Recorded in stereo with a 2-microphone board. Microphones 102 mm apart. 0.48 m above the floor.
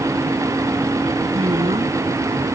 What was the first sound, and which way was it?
A woman speaking, 75° right (ahead or behind).